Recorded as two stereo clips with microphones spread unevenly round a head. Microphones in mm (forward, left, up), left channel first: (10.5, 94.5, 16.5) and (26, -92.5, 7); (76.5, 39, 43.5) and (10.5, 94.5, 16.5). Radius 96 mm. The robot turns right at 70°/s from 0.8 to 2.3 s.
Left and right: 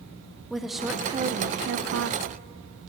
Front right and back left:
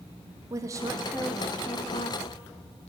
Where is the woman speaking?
175° right, 0.5 m; by 2.9 s 70° right, 0.5 m.